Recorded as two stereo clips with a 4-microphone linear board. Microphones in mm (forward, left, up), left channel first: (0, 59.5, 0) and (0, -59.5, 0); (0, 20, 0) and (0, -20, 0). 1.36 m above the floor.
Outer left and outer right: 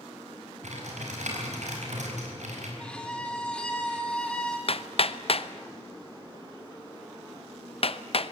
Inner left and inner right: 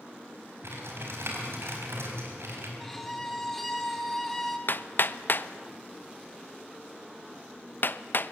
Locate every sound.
0.6 s typing on a keyboard: 80° right, 5 m
2.8 s a violin: 10° left (ahead or behind), 2 m
4.7 s hammering: 55° left (ahead or behind), 0.7 m